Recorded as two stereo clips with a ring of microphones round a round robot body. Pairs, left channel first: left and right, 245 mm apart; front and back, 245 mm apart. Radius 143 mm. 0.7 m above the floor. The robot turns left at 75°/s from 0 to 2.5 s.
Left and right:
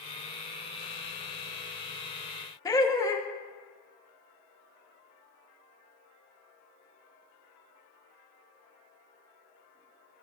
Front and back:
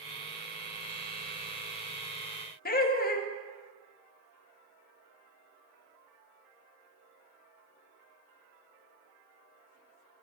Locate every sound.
2.6 s laughter: 25° left, 0.7 m